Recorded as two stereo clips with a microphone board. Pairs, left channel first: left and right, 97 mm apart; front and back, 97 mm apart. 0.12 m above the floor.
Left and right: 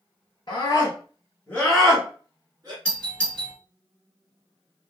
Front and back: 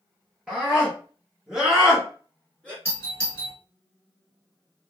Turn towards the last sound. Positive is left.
turn(degrees=20)